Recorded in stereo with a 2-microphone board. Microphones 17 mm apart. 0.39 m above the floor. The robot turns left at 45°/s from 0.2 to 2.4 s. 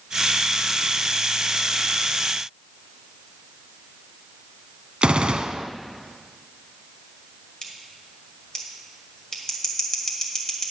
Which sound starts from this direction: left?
Scissors, at 7.6 s.